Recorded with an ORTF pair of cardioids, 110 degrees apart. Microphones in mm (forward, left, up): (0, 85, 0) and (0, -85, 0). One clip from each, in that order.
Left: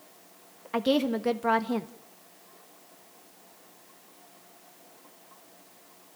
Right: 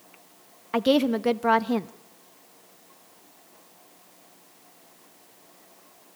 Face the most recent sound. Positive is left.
turn(degrees=-20)